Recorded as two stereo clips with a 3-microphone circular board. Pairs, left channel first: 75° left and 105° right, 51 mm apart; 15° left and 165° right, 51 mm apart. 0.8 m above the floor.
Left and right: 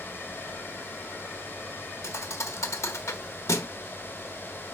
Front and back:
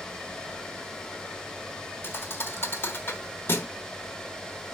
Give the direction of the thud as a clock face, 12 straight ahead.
10 o'clock.